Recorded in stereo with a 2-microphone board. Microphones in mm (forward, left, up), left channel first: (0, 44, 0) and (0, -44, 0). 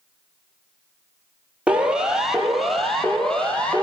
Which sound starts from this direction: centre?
A siren, at 1.7 s.